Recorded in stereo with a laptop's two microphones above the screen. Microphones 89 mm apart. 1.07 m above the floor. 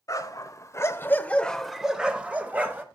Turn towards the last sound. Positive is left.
turn(degrees=-25)  # may be behind; listen again after turning